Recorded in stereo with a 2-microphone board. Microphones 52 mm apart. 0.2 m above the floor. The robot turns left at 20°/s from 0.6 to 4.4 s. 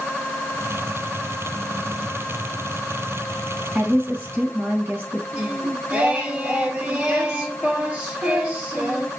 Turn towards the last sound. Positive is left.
turn(degrees=-30)  # may be behind; listen again after turning